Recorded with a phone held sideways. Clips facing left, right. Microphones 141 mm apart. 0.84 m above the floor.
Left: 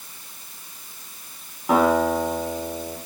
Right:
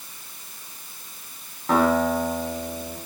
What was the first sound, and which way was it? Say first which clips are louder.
A guitar: left 1 dB; 10° left (ahead or behind).